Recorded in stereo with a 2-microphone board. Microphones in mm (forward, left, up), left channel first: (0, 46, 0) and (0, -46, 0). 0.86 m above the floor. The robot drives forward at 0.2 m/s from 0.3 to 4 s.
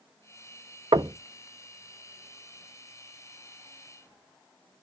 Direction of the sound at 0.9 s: 60° right (ahead or behind).